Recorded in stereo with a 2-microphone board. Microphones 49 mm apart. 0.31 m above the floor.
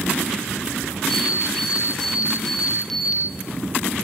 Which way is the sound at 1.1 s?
5° left (ahead or behind).